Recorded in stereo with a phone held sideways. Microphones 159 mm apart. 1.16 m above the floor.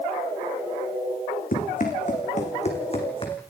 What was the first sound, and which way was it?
Running footsteps, 60° left (ahead or behind).